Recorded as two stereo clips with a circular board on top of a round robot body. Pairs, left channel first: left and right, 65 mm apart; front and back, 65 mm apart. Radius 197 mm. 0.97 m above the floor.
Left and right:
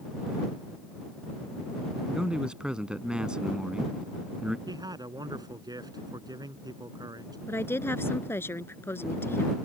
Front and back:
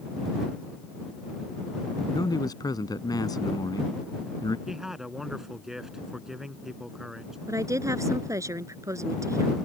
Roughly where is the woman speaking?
Behind left.